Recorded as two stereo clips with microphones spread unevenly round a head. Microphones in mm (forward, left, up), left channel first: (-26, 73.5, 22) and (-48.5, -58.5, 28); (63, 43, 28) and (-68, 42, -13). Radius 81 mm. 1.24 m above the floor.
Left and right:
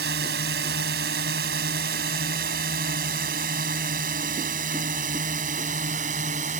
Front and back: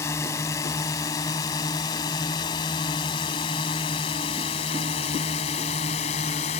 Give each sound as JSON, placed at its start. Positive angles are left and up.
{"t": 0.0, "sound": "a drone", "azimuth_deg": -70}